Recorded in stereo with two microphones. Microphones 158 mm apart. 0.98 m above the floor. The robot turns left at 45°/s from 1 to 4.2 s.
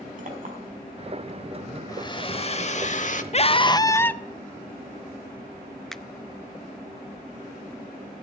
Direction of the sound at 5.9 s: 5° left (ahead or behind).